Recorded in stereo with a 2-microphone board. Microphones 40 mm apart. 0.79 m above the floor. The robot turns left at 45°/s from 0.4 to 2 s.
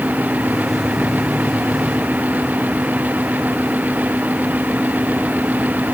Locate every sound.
Only background noise.